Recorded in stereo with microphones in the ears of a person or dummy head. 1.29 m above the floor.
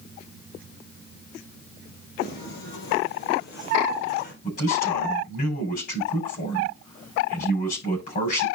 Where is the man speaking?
45° left (ahead or behind), 9 m.